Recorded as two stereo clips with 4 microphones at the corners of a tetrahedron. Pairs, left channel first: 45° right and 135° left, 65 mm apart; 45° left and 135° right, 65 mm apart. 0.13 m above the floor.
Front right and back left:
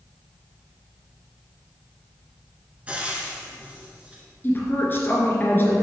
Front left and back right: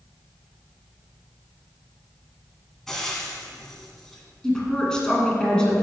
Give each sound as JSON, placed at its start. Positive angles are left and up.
{"t": 2.9, "sound": "frying", "azimuth_deg": 120, "distance_m": 1.3}
{"t": 4.4, "sound": "a woman speaking", "azimuth_deg": -25, "distance_m": 1.8}